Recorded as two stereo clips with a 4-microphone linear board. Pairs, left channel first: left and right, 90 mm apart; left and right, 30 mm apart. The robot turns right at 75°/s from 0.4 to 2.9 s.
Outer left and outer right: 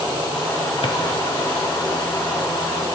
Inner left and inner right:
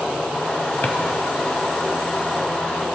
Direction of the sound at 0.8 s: 75° left (ahead or behind).